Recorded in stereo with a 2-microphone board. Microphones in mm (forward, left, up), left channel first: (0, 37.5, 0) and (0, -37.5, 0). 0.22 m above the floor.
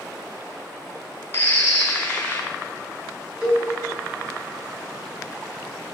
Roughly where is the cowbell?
Right.